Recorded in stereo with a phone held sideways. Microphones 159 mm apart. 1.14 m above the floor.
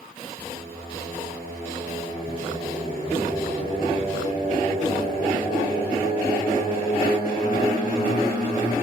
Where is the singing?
35° left (ahead or behind), 6 m.